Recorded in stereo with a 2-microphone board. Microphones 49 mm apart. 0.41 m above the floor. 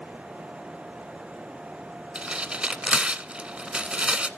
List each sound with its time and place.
2.1 s tearing paper: 20° right (ahead or behind), 0.6 m